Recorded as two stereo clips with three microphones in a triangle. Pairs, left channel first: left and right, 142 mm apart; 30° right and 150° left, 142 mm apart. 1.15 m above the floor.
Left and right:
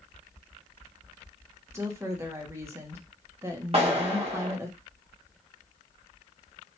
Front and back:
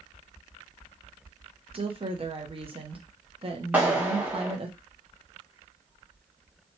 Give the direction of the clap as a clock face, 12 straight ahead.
4 o'clock.